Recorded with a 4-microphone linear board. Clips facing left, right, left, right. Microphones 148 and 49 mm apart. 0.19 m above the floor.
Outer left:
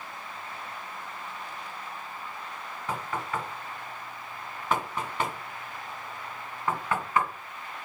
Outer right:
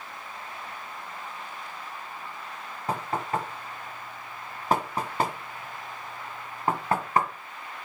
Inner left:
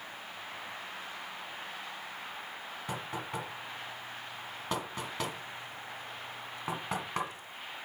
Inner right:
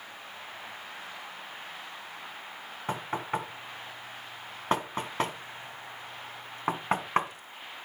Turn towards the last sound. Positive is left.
turn(degrees=-40)  # may be behind; listen again after turning